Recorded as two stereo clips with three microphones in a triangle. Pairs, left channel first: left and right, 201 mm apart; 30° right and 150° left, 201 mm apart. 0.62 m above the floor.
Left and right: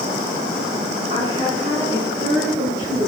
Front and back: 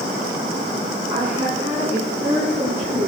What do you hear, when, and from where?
1.1 s a woman speaking: 150° right, 6.5 m; by 3.1 s 165° right, 8 m